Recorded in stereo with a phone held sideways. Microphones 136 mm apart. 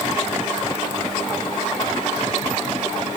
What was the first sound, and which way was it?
Only background noise.